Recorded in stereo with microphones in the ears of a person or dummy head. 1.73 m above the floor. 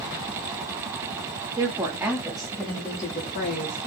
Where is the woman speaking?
20° right (ahead or behind), 1.2 m; by 3.8 s 50° left (ahead or behind), 0.7 m.